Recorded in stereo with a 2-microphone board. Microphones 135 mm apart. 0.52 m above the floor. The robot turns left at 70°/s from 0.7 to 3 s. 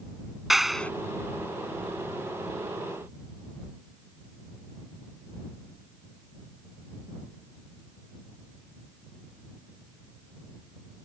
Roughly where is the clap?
Centre.